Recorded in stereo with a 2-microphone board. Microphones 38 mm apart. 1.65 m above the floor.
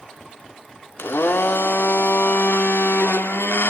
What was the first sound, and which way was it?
A blender, 80° left.